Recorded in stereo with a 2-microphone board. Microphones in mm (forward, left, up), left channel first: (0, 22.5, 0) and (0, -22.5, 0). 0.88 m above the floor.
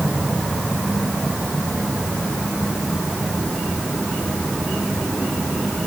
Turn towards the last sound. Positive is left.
No sound to turn to.